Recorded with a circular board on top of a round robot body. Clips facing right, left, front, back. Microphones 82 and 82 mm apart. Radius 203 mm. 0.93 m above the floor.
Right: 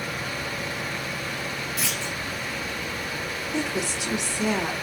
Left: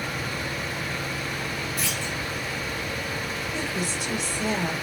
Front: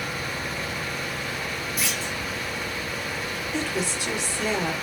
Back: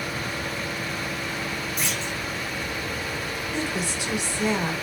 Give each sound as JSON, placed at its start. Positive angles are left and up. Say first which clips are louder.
{"t": 1.8, "sound": "a clunk", "louder": "even, even", "azimuth_deg": -85, "distance_m": 3.0}
{"t": 3.5, "sound": "a woman speaking", "louder": "right 4 dB, front 1 dB", "azimuth_deg": -100, "distance_m": 2.5}